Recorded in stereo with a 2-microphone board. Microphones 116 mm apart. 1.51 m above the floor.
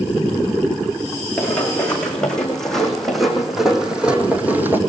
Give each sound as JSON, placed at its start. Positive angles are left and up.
{"t": 1.4, "sound": "running footsteps", "side_deg": 10, "distance_m": 4.5}